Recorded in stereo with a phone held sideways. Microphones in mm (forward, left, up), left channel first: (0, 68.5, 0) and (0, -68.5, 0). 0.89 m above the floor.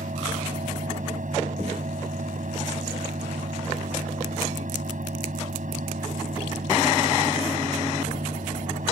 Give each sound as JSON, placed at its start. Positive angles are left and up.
{"t": 0.0, "sound": "a fan", "side_deg": -75}